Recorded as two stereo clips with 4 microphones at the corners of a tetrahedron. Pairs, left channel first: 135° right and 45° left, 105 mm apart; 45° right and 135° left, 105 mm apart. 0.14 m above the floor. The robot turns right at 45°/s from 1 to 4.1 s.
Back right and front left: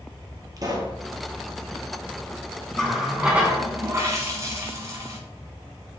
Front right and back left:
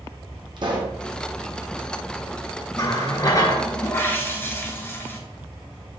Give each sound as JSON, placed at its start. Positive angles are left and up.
{"t": 0.6, "sound": "a pop", "azimuth_deg": 95, "distance_m": 1.0}
{"t": 2.8, "sound": "a running tap", "azimuth_deg": -55, "distance_m": 0.9}